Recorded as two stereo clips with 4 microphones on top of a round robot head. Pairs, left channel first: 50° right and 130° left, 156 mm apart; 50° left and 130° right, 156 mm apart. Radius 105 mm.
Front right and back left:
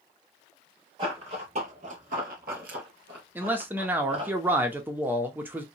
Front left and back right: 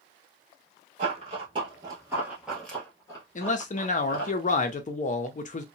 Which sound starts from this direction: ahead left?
A man speaking, at 3.4 s.